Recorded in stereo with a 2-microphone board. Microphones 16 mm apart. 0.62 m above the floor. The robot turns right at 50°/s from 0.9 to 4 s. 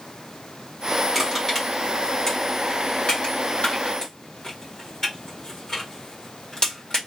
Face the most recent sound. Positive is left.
turn(degrees=45)  # may be behind; listen again after turning